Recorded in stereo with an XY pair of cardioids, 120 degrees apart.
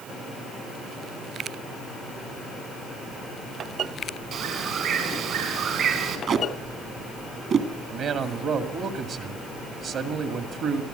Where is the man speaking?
60° right, 2 m.